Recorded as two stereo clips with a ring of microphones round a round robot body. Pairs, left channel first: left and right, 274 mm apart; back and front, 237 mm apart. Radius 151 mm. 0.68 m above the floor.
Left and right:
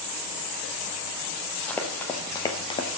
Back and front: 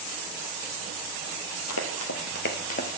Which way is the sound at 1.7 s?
175° left.